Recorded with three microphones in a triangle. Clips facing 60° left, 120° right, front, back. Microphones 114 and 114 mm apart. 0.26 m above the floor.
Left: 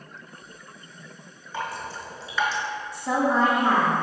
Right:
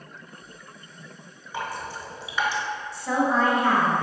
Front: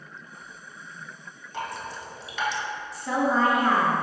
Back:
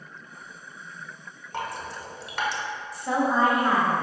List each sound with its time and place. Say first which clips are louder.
1.5 s dripping: even, back 1 dB; 165° left, 0.6 m
2.9 s a woman speaking: even, even; 125° left, 1.0 m